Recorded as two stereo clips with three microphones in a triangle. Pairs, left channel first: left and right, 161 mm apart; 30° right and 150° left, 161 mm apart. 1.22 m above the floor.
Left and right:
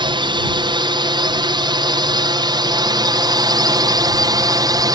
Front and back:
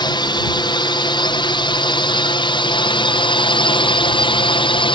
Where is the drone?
60° right; by 5.0 s 45° right.